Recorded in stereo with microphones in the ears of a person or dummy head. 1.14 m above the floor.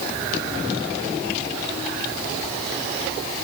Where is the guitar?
No guitar in this recording.